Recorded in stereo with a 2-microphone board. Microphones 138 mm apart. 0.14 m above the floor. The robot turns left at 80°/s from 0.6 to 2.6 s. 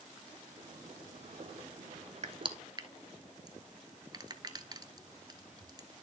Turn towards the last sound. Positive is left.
turn(degrees=-30)  # may be behind; listen again after turning